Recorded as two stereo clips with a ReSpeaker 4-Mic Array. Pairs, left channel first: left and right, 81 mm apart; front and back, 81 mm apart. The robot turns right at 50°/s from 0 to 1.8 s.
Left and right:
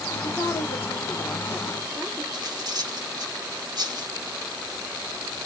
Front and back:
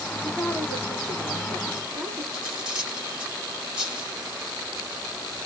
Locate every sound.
0.1 s a woman speaking: 95° left, 1.5 m; by 2.2 s 175° left, 1.5 m
2.3 s cutlery clinking: 105° right, 1.7 m